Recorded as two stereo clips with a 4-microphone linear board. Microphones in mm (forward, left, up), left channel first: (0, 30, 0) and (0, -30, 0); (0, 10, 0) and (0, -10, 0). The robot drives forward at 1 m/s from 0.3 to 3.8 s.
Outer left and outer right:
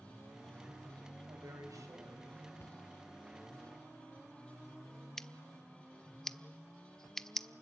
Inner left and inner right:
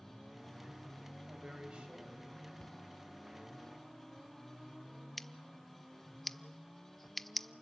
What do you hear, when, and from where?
1.3 s a woman speaking: 70° right (ahead or behind), 4 m; by 2.5 s 60° right (ahead or behind), 4.5 m
2.6 s a cupboard door: 35° left (ahead or behind), 1.3 m
5.2 s scissors: 10° left (ahead or behind), 0.7 m